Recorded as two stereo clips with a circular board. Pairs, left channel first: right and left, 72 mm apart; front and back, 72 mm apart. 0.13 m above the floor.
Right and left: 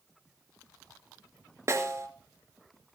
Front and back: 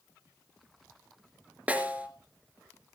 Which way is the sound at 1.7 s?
115° left.